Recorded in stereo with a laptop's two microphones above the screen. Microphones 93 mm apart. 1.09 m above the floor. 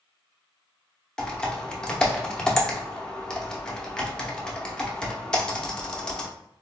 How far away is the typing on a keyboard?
About 0.7 m.